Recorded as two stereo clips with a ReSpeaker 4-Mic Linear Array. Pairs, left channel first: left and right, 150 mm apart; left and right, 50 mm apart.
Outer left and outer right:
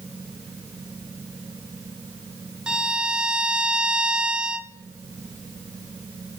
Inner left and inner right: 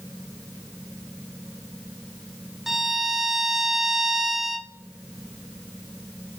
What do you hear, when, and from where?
2.7 s a violin: 5° right (ahead or behind), 0.5 m